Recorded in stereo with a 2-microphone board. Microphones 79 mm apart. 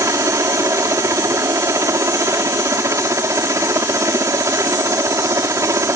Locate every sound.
0.0 s a helicopter: 40° right (ahead or behind)